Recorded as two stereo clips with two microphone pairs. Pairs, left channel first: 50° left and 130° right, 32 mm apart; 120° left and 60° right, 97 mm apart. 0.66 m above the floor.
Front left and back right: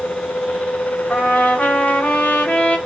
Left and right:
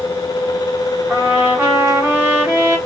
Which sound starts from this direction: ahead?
A trumpet, at 1.1 s.